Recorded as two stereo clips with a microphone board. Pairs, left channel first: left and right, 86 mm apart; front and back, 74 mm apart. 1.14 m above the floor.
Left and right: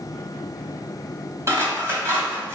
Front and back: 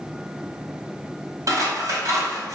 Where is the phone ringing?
No phone ringing in this recording.